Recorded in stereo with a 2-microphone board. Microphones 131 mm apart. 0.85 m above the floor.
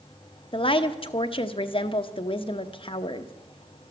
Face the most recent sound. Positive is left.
turn(degrees=45)  # may be behind; listen again after turning